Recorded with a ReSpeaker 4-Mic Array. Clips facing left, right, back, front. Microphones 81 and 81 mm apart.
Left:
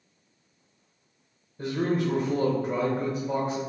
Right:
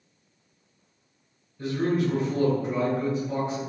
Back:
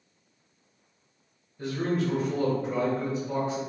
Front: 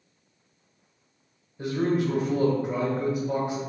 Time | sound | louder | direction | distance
1.6 | a man speaking | right 1 dB, front 3 dB | 75° left | 1.3 m